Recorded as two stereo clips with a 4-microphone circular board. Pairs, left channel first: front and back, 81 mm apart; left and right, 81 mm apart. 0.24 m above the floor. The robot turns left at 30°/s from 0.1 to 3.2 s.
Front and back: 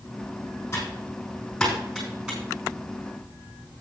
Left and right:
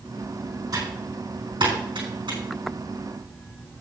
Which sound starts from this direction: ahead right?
Typing on a keyboard, at 0.7 s.